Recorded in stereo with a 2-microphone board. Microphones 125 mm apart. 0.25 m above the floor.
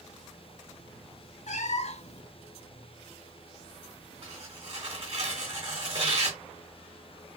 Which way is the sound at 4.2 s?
50° right (ahead or behind).